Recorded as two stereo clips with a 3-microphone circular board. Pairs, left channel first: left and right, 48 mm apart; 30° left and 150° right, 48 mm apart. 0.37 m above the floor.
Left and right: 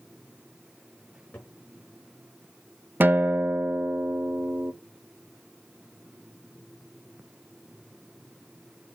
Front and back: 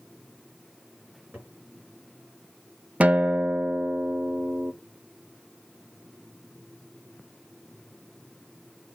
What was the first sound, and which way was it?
A cupboard door, 145° left.